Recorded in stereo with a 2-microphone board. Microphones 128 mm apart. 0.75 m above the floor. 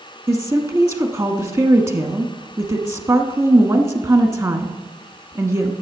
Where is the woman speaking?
25° right (ahead or behind), 1.0 m.